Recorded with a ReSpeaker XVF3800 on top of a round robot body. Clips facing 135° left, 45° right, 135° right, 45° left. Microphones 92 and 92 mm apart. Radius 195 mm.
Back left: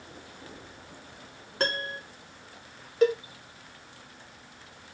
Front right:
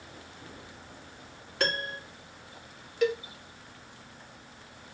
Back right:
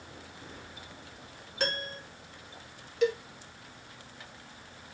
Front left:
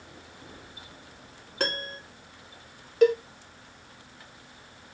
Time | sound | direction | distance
1.6 | a piano | 85° left | 2.5 m
3.0 | a cowbell | 85° left | 0.8 m